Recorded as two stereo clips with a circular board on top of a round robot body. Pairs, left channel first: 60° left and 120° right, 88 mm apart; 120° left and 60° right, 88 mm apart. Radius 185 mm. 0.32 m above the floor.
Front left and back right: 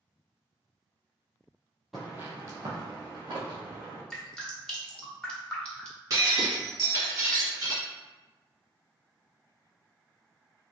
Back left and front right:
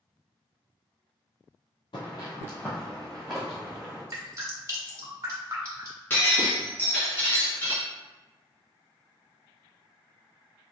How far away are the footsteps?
About 0.9 m.